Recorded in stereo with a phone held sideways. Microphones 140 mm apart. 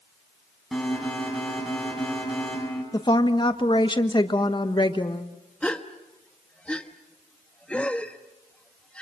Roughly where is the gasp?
Centre.